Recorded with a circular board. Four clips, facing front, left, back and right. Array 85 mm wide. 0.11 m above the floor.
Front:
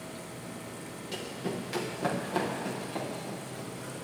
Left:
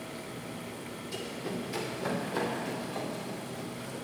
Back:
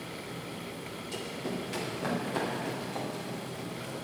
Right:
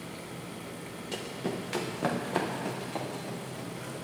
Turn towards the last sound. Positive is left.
turn(degrees=-90)